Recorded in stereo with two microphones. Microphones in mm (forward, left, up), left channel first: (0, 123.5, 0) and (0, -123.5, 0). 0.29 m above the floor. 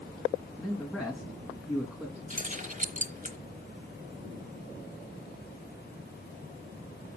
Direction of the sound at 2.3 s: 30° right (ahead or behind).